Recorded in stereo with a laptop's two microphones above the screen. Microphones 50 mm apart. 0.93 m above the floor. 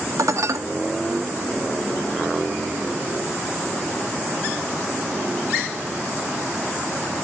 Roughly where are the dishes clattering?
Right.